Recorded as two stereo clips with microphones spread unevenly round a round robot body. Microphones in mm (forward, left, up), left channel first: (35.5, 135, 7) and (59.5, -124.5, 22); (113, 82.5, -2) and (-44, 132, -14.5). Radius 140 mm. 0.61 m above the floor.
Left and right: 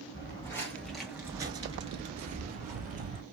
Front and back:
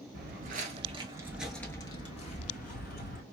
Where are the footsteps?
170° left, 0.8 m; by 3.2 s 30° right, 1.1 m.